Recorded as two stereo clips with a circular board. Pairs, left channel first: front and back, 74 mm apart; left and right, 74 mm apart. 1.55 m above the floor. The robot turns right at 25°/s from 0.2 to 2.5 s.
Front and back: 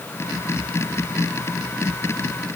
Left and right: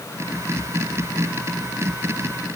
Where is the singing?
I don't hear singing.